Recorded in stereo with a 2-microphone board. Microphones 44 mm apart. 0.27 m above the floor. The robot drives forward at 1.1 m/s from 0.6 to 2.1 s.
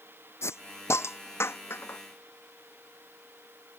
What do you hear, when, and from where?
0.4 s a hiss: 85° left; by 2.0 s 60° left (ahead or behind)